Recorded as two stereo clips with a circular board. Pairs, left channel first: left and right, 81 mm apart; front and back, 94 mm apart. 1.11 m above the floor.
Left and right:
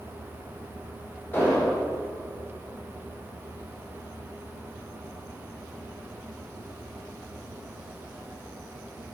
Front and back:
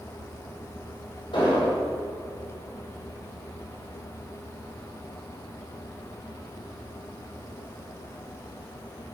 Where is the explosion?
25° left, 2.5 m.